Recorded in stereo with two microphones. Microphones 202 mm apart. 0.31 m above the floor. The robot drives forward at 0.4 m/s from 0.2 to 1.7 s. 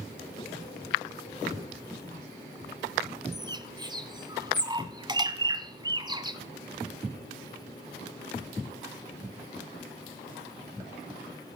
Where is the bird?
20° right (ahead or behind), 1.0 m.